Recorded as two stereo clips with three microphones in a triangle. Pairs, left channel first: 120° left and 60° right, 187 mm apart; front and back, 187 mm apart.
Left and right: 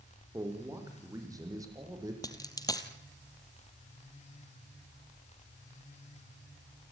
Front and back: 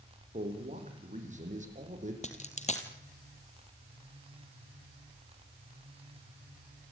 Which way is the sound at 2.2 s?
50° left.